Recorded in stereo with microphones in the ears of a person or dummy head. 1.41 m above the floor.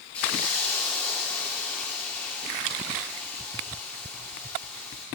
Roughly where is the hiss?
Centre.